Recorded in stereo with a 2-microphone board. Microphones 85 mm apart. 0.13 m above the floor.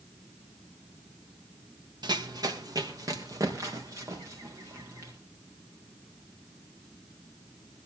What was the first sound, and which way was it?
Running footsteps, 55° right (ahead or behind).